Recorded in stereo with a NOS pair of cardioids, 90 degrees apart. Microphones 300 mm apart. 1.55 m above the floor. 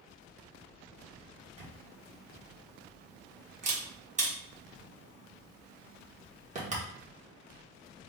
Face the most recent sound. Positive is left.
turn(degrees=-25)